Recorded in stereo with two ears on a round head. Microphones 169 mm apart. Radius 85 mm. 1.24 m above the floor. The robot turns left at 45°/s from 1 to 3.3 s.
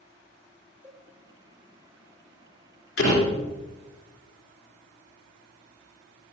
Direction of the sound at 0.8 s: 10° right (ahead or behind).